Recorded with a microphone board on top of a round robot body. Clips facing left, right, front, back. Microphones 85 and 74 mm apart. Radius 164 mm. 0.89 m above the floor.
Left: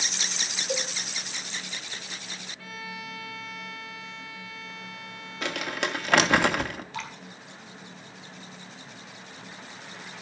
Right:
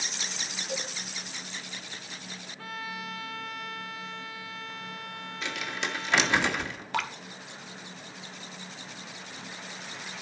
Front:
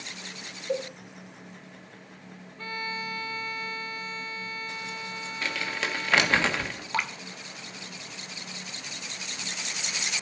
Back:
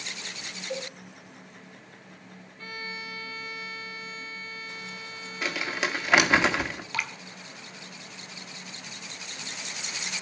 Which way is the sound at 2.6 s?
40° right.